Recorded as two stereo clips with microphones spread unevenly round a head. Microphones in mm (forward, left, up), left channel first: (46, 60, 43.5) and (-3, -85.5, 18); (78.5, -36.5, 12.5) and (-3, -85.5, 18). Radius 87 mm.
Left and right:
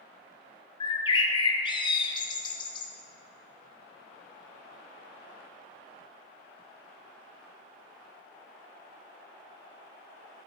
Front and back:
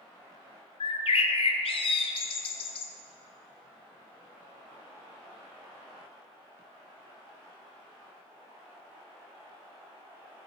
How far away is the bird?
About 0.6 m.